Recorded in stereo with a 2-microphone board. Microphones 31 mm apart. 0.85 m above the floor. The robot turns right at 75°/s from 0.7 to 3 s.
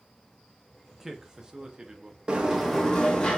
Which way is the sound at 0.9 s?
5° right (ahead or behind).